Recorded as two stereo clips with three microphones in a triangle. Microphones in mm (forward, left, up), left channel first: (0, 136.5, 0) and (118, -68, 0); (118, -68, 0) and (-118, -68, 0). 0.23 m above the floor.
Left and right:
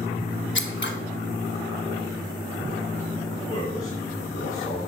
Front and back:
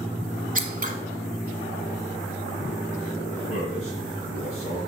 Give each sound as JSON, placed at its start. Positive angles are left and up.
{"t": 0.6, "sound": "scissors", "azimuth_deg": 135, "distance_m": 1.0}
{"t": 3.5, "sound": "a man speaking", "azimuth_deg": 60, "distance_m": 3.0}